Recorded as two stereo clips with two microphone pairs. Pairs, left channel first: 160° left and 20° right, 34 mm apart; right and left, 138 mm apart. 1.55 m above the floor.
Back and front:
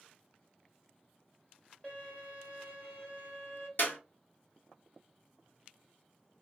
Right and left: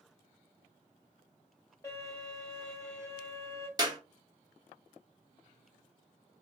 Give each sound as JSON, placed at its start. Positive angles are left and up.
{"t": 1.8, "sound": "a violin", "azimuth_deg": -145, "distance_m": 1.5}
{"t": 3.8, "sound": "a clap", "azimuth_deg": 150, "distance_m": 0.9}